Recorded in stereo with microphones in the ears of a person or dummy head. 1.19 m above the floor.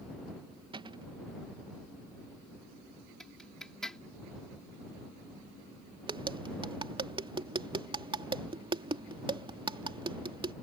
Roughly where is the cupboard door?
Right.